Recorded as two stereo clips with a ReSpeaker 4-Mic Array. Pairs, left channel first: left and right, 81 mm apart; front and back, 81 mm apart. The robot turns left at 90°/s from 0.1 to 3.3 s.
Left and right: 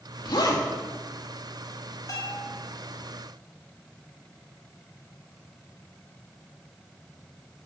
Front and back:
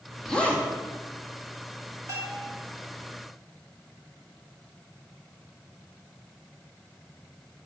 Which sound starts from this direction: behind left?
A bell, at 2.1 s.